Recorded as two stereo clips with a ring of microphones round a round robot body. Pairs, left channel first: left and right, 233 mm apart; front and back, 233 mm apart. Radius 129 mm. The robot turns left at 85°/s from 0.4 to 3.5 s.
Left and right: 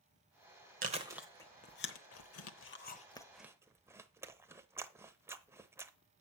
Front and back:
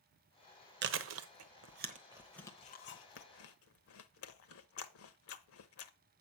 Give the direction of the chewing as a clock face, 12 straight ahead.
5 o'clock.